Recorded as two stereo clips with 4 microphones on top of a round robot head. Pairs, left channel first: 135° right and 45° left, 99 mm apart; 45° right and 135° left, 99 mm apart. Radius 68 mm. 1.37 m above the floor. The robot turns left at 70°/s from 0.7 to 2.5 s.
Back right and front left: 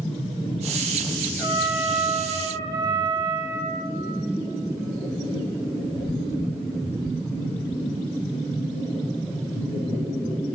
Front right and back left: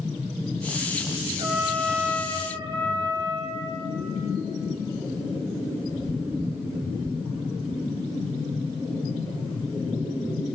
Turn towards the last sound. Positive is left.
turn(degrees=95)